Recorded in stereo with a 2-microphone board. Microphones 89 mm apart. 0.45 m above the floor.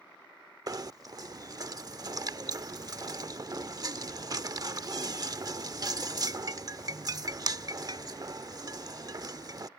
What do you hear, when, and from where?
0.7 s knocking: 45° right (ahead or behind)